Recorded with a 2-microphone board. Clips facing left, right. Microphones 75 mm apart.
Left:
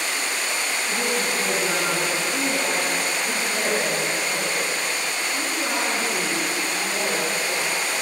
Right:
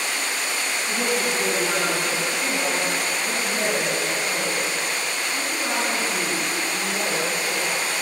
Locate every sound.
0.9 s a woman speaking: 55° right (ahead or behind), 9.5 m; by 7.8 s 15° right (ahead or behind), 16.5 m